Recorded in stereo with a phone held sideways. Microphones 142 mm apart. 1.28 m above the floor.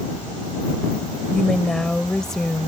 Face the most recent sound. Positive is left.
turn(degrees=5)  # may be behind; listen again after turning